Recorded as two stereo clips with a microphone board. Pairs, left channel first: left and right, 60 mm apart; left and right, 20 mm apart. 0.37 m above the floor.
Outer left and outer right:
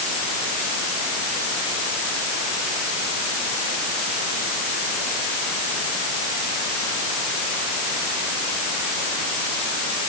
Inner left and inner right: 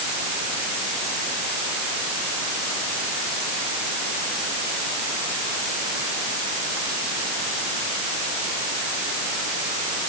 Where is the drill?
I don't hear a drill.